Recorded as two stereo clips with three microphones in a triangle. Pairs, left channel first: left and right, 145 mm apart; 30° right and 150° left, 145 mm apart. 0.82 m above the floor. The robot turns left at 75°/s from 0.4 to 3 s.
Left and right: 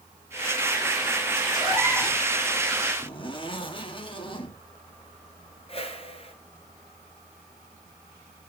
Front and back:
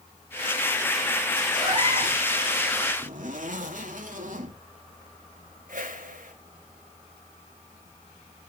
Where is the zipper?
140° left, 1.9 m.